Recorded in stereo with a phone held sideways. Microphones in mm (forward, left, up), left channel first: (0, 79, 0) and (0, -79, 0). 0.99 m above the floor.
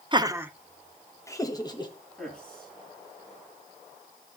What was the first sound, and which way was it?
Laughter, 30° right (ahead or behind).